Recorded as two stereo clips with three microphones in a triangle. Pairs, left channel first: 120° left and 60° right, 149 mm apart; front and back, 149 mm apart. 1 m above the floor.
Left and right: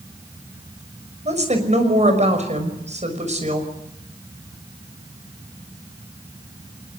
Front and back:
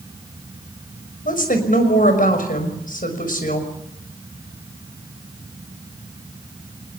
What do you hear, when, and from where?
1.2 s a woman speaking: 20° right, 6 m